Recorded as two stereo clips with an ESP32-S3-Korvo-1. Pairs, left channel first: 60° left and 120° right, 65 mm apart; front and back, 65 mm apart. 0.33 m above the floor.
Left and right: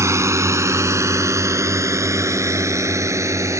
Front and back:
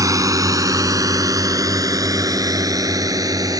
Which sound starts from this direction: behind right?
A drone, at 0.0 s.